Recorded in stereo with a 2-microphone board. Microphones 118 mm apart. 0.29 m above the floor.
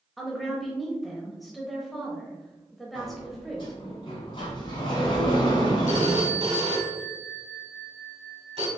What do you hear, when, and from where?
0.2 s a woman speaking: centre (ahead or behind), 0.9 m
3.0 s a sliding door: 45° left (ahead or behind), 1.6 m
5.9 s a phone ringing: 55° right (ahead or behind), 1.5 m